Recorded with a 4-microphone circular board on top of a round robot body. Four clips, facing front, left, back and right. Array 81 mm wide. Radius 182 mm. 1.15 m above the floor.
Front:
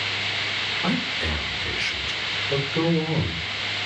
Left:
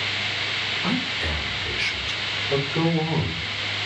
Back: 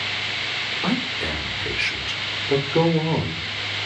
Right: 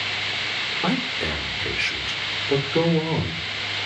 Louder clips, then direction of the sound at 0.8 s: Right 3 dB, back 2 dB; 105° right.